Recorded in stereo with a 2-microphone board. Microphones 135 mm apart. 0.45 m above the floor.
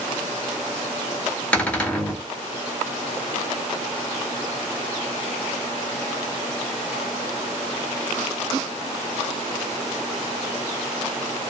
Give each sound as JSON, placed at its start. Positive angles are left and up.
{"t": 1.5, "sound": "a cupboard door", "side_deg": 10, "distance_m": 1.6}